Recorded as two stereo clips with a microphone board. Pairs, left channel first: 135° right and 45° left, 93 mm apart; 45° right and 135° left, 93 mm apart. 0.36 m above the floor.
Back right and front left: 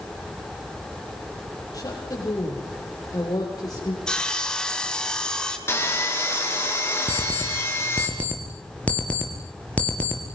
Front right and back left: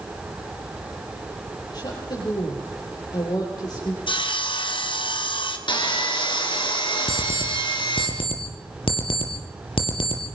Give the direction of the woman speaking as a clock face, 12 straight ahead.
3 o'clock.